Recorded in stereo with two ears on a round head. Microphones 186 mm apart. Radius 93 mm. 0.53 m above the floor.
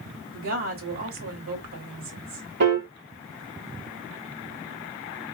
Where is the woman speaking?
70° right (ahead or behind), 1.9 m.